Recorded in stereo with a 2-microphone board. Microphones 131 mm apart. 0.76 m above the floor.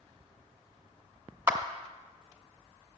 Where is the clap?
20° right (ahead or behind), 0.8 m.